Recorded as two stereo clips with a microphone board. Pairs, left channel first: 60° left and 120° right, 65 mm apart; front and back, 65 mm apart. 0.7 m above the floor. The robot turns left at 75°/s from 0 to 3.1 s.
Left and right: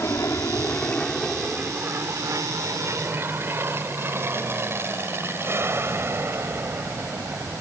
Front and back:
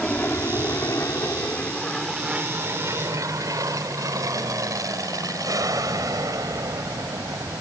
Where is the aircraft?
65° left; by 7.6 s 165° right.